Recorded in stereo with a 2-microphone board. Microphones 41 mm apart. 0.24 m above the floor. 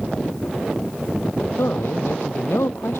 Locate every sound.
1.6 s a man speaking: 80° left